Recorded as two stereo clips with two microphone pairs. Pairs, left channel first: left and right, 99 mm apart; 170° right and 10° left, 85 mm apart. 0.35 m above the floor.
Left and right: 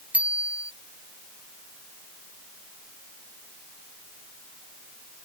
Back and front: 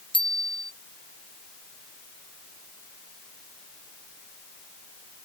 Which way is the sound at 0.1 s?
165° right.